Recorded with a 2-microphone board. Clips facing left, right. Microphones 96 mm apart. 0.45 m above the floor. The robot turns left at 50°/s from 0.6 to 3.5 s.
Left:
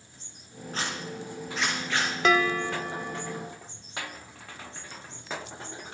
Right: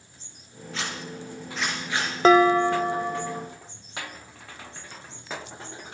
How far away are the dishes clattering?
About 0.6 m.